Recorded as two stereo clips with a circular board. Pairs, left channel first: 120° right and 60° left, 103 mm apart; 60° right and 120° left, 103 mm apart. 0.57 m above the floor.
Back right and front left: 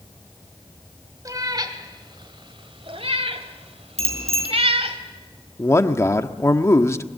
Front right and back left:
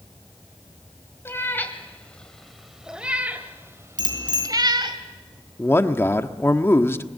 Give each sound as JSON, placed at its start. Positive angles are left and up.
{"t": 1.2, "sound": "a cat meowing", "azimuth_deg": 5, "distance_m": 2.0}
{"t": 4.0, "sound": "a bicycle bell", "azimuth_deg": 75, "distance_m": 5.5}
{"t": 5.6, "sound": "a man speaking", "azimuth_deg": -95, "distance_m": 1.2}